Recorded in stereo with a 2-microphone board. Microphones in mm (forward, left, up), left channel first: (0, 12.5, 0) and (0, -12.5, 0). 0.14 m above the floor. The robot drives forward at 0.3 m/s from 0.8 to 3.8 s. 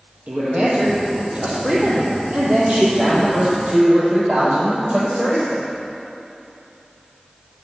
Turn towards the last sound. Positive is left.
turn(degrees=-45)  # may be behind; listen again after turning